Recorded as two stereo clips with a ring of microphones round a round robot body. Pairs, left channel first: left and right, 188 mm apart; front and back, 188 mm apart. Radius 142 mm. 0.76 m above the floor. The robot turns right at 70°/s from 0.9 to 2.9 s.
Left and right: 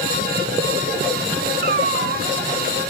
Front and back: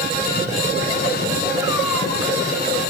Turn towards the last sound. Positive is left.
turn(degrees=-20)